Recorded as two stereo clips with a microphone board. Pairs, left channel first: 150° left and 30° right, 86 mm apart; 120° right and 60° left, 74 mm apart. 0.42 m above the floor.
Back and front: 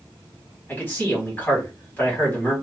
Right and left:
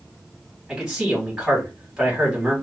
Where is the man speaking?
125° left, 1.4 m.